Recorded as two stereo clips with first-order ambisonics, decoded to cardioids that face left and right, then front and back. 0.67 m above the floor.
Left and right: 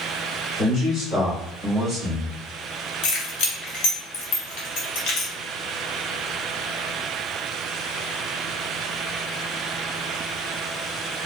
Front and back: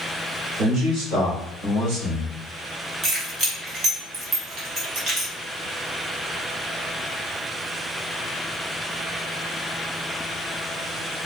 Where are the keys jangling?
120° left, 1.6 m.